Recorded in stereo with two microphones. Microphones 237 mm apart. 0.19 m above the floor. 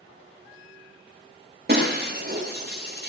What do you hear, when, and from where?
1.7 s breaking glass: 40° right (ahead or behind), 7 m